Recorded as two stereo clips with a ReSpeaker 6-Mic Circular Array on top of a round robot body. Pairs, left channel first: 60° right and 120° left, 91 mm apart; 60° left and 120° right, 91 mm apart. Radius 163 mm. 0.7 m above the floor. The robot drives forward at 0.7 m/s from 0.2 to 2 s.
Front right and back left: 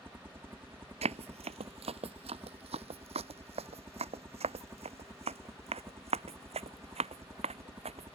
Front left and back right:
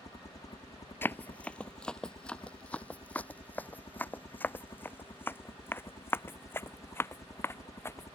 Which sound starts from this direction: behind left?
Running footsteps, at 1.0 s.